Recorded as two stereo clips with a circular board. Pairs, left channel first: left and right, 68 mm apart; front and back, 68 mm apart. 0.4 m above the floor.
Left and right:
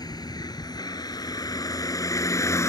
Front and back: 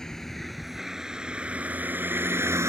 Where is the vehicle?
85° left; by 2.7 s 135° left.